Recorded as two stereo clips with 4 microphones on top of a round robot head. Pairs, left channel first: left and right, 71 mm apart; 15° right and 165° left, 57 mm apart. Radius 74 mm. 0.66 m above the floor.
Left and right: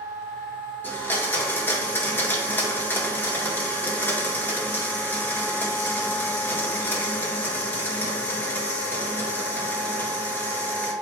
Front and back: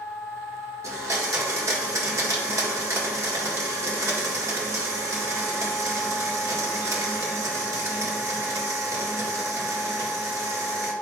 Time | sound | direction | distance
0.8 | a blender | 150° left | 1.9 m